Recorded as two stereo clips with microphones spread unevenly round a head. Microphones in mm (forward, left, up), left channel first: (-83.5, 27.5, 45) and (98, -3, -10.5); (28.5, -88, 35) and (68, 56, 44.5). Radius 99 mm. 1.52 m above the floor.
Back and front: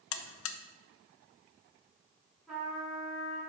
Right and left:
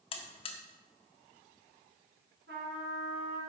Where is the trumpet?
85° left, 4 m.